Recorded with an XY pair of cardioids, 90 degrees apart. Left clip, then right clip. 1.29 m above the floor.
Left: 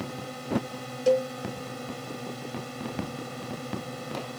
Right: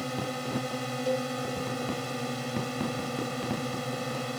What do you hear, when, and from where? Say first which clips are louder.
0.0 s a drone: right 4 dB; 40° right
1.1 s a cowbell: left 8 dB; 55° left